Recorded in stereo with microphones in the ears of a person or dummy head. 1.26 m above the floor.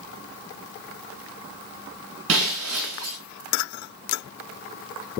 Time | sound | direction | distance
2.3 | breaking glass | 75° right (ahead or behind) | 4.5 m